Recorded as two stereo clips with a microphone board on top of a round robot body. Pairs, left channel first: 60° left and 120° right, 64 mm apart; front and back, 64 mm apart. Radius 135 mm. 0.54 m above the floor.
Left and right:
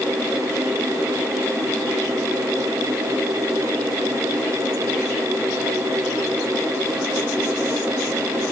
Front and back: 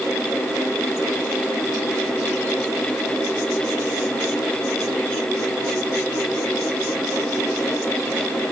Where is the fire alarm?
No fire alarm in this recording.